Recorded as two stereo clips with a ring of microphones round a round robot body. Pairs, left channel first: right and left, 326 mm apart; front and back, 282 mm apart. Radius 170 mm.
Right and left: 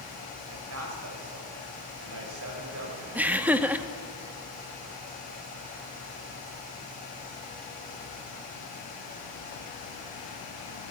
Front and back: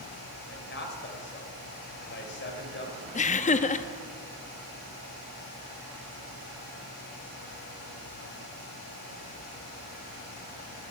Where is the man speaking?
45° left, 3 m.